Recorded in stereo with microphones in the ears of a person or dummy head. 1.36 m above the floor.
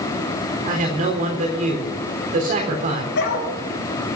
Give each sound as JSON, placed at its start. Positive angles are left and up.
{"t": 0.7, "sound": "a man speaking", "side_deg": -50, "distance_m": 3.5}
{"t": 3.1, "sound": "a dog barking", "side_deg": 80, "distance_m": 5.0}